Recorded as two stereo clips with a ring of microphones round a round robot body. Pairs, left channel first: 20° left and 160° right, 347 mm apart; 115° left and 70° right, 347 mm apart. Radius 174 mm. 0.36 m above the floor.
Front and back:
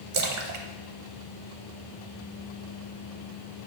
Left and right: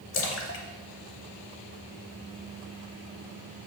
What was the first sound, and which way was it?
A splash, 165° left.